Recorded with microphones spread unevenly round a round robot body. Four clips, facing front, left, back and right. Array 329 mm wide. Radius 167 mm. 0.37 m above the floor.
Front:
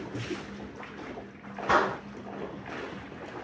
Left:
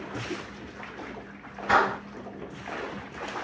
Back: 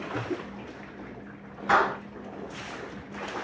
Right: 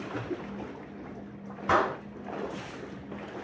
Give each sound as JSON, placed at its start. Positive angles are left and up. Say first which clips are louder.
{"t": 1.7, "sound": "a clap", "louder": "left 3 dB, back 2 dB", "azimuth_deg": -70, "distance_m": 2.5}